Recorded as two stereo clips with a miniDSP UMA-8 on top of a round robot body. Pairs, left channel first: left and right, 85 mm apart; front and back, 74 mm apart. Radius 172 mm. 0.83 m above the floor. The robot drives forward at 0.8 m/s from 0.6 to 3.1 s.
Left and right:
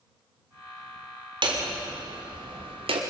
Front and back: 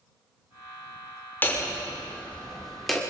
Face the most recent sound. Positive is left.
turn(degrees=-90)